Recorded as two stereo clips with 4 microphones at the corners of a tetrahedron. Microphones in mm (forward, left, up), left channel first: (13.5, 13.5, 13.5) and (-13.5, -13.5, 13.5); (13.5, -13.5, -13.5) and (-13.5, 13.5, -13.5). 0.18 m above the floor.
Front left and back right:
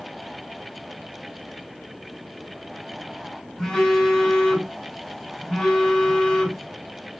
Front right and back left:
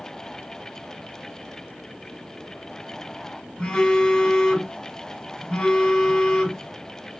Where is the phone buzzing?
45° right, 1.4 m.